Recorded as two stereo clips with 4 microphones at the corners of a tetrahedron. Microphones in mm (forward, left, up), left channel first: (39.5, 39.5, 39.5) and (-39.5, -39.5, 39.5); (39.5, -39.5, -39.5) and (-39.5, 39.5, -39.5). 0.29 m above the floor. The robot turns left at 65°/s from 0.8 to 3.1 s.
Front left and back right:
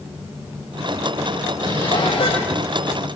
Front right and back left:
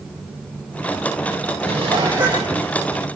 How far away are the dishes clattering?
About 7 m.